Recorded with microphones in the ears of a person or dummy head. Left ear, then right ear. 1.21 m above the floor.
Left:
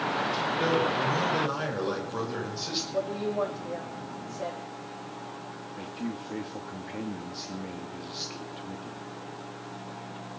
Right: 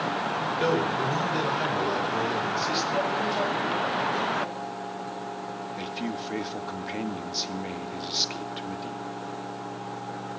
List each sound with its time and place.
0.6 s a man speaking: centre (ahead or behind), 6 m; by 2.8 s 10° left (ahead or behind), 7.5 m
2.9 s a woman speaking: 75° left (ahead or behind), 3.5 m
5.8 s a man speaking: 35° right (ahead or behind), 1.3 m